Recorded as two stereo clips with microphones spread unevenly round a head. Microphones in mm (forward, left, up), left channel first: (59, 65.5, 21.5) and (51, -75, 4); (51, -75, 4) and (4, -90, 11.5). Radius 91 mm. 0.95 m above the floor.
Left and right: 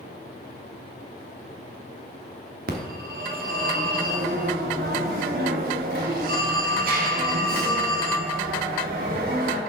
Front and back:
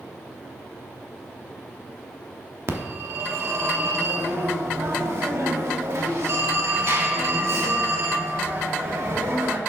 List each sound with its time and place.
2.7 s a phone ringing: 135° right, 0.9 m